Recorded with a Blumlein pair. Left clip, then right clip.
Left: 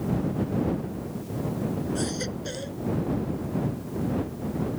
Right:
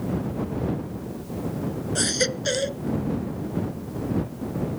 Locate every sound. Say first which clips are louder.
1.9 s a baby crying: right 7 dB; 60° right